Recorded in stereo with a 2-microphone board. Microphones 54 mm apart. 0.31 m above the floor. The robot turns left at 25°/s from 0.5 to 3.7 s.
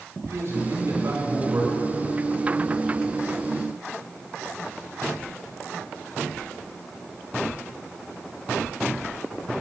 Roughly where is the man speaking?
Right.